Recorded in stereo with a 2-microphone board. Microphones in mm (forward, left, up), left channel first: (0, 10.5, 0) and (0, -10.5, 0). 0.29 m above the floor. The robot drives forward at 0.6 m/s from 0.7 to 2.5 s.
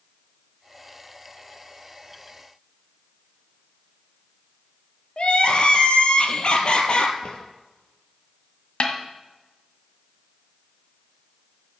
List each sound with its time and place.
5.2 s crying: 50° left (ahead or behind), 1.5 m
7.2 s a drawer: 40° left (ahead or behind), 2.5 m
8.8 s a snare drum: 50° left (ahead or behind), 1.6 m